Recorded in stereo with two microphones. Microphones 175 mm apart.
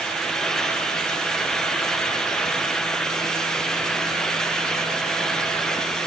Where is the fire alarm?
I don't hear a fire alarm.